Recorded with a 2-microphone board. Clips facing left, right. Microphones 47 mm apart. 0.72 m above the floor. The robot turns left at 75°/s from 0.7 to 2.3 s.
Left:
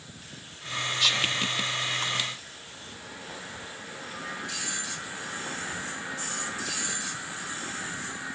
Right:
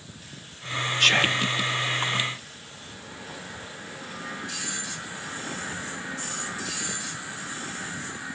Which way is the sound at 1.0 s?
95° right.